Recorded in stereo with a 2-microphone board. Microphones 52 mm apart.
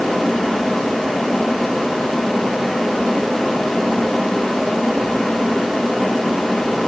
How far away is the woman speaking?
I don't hear a woman speaking.